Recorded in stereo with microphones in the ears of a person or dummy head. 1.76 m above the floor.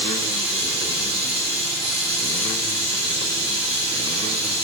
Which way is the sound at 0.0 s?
10° right (ahead or behind).